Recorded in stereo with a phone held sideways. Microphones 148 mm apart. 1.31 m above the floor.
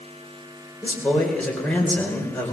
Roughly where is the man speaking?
Centre.